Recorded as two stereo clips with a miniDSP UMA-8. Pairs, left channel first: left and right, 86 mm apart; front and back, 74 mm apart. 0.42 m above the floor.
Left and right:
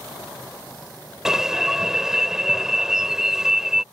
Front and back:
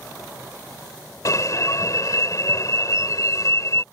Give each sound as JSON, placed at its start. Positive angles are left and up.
{"t": 1.2, "sound": "an alarm", "azimuth_deg": -10}